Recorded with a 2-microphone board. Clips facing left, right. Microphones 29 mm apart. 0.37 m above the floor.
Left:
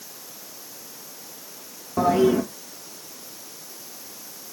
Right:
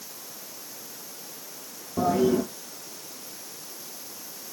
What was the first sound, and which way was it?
A toilet flushing, 80° left.